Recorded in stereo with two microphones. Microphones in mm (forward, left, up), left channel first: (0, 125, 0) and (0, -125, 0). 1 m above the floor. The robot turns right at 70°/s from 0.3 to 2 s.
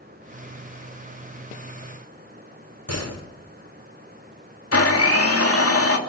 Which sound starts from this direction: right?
A door slam, at 2.9 s.